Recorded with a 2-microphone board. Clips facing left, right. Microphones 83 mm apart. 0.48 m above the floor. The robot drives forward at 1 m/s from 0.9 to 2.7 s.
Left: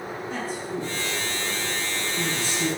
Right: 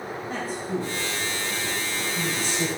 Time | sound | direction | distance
0.3 | a man speaking | 50° right (ahead or behind) | 2.5 m